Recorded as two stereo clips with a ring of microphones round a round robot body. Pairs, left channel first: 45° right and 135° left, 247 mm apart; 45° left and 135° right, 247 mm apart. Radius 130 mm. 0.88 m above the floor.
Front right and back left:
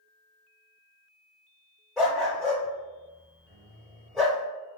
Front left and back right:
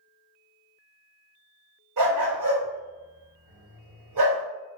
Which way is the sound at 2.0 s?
135° right.